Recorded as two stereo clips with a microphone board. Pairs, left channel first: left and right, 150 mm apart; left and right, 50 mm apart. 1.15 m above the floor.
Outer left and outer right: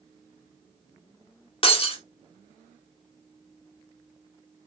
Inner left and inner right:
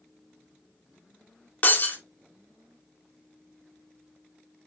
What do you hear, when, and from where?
1.6 s breaking glass: 40° left (ahead or behind), 1.7 m